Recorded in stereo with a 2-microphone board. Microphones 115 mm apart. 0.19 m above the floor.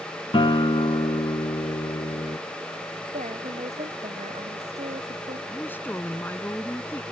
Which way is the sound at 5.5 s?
15° left (ahead or behind).